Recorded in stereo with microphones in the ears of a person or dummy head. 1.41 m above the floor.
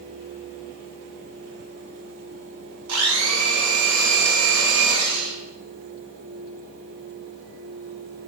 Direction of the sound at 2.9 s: 75° right (ahead or behind).